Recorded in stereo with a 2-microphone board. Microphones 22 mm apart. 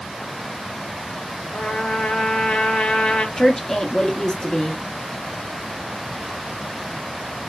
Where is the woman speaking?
25° left (ahead or behind), 0.7 m.